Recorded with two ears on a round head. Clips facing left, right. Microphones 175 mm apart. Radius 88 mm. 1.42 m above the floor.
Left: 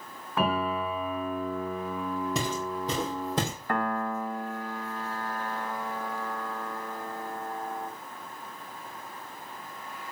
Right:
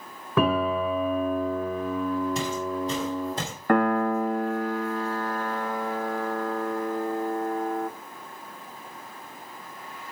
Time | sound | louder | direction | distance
0.4 | a piano | right 5 dB | 70° right (ahead or behind) | 2.5 m
2.4 | footsteps | right 3 dB | 65° left (ahead or behind) | 4 m
3.7 | a piano | right 10 dB | 50° right (ahead or behind) | 0.6 m